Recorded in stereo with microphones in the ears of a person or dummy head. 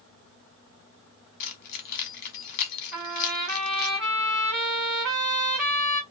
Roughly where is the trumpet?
Right.